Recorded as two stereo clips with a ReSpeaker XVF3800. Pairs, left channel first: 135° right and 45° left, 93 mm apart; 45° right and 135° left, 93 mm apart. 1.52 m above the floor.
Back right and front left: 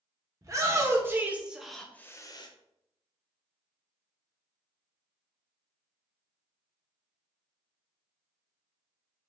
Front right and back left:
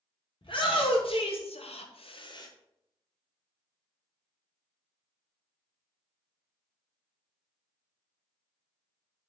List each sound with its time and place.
0.4 s a shout: 10° right, 1.1 m; by 2.5 s 95° right, 0.5 m